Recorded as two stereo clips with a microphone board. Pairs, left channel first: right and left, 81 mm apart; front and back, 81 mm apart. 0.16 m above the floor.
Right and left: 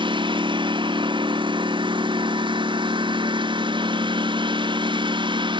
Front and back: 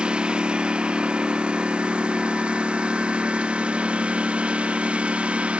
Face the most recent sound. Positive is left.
turn(degrees=105)